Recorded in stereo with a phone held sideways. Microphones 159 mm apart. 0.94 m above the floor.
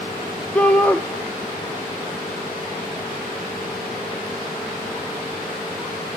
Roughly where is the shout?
Centre.